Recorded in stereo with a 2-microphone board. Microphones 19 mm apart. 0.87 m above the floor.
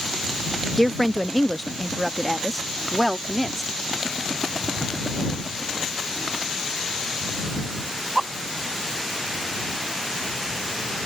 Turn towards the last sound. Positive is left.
turn(degrees=5)  # may be behind; listen again after turning